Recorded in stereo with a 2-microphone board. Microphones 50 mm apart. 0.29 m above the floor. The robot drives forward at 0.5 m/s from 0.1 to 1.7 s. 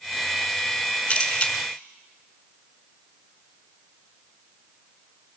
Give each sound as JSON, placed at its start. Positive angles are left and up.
{"t": 1.1, "sound": "a camera shutter", "side_deg": 20, "distance_m": 2.5}